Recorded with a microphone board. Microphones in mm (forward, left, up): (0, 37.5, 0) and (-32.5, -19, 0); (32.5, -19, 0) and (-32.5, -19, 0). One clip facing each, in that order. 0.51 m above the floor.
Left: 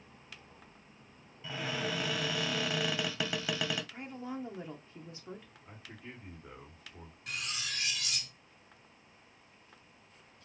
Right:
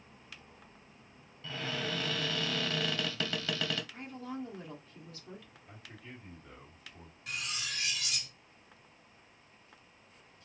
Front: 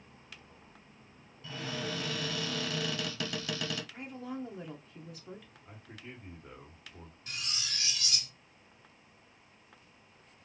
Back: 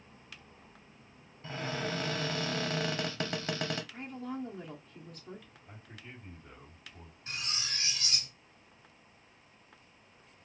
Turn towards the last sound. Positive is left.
turn(degrees=150)